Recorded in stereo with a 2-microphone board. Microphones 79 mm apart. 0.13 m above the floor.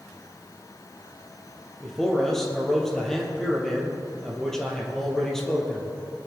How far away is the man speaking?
About 4 m.